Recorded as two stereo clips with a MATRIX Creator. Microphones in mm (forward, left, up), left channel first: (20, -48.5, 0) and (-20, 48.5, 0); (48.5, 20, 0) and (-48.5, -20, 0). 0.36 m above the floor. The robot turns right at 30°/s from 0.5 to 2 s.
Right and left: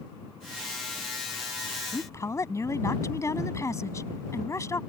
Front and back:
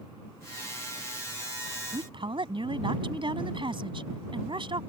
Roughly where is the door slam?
No door slam in this recording.